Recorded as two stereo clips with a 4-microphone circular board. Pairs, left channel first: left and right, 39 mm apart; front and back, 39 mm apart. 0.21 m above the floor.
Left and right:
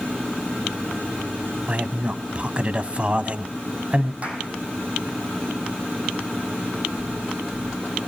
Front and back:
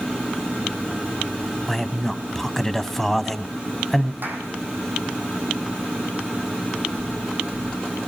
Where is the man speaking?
75° right, 1.2 m.